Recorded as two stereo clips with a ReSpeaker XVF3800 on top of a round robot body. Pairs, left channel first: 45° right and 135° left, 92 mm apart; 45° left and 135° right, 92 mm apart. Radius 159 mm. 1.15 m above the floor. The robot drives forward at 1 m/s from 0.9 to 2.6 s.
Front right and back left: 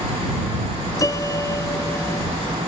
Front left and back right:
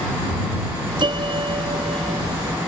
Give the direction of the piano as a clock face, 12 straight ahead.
3 o'clock.